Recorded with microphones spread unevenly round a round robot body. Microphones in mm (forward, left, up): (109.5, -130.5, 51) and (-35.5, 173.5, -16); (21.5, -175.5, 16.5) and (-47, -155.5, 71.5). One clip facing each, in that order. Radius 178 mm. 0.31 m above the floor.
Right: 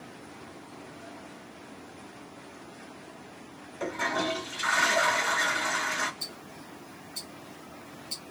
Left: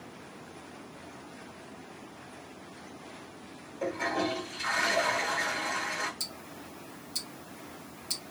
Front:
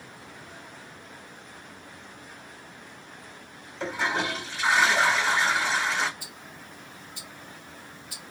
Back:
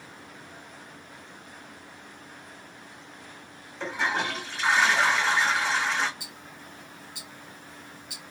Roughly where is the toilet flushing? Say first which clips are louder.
Left 1 dB, even; right.